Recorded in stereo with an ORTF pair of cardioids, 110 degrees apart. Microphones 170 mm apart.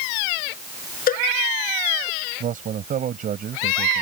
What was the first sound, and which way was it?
A cowbell, 55° left.